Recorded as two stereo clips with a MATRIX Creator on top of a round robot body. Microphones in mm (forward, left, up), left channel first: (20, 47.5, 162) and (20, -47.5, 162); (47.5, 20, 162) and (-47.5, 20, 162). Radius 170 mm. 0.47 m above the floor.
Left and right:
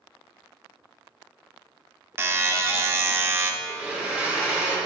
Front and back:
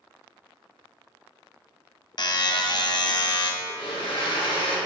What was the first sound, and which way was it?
A buzzer, 30° right.